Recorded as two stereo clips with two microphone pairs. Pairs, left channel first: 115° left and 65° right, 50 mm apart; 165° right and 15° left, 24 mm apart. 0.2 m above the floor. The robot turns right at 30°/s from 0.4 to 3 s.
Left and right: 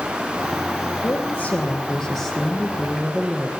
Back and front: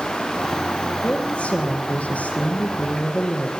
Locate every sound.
1.0 s a woman speaking: 165° left, 6.5 m; by 3.5 s 135° right, 6.5 m